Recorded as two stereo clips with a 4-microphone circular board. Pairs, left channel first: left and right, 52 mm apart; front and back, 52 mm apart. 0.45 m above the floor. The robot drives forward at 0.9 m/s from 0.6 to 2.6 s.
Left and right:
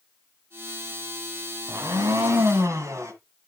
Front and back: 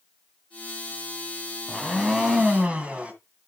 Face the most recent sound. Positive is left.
turn(degrees=-115)